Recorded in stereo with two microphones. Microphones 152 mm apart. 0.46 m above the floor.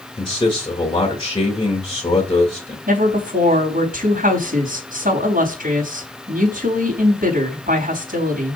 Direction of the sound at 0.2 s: 30° left (ahead or behind).